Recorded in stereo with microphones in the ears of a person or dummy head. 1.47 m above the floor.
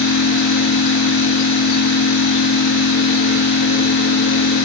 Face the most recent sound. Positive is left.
turn(degrees=75)  # may be behind; listen again after turning